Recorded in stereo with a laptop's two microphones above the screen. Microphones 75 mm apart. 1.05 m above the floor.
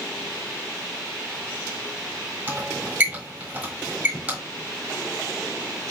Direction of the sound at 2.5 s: 20° right (ahead or behind).